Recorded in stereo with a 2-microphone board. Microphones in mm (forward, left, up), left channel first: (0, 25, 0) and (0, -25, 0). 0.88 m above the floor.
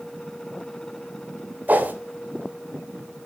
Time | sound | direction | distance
1.7 | a whoosh | 40° right (ahead or behind) | 2.5 m